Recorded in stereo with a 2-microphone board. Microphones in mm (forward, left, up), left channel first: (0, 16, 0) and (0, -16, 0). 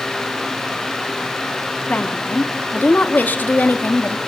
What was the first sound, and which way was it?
A woman speaking, 55° left (ahead or behind).